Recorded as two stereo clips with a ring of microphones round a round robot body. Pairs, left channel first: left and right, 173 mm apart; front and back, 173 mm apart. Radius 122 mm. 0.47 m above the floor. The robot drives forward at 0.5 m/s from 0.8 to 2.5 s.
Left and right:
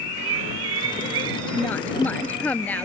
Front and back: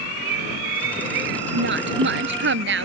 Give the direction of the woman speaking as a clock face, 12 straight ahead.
6 o'clock.